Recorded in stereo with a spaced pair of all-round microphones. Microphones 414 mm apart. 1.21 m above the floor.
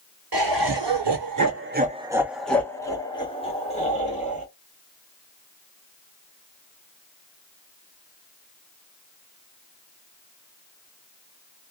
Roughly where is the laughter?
Right.